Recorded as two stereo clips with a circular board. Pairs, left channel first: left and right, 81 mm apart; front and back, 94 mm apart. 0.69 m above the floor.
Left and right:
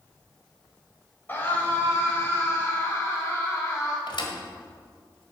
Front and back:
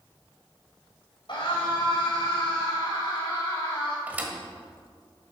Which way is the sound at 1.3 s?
25° left.